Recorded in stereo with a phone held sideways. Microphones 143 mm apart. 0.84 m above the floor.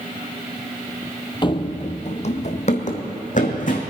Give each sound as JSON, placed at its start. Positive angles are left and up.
{"t": 1.4, "sound": "running footsteps", "side_deg": 30, "distance_m": 0.9}